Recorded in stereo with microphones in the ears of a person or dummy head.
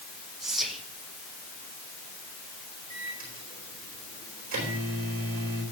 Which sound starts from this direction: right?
A microwave, at 2.9 s.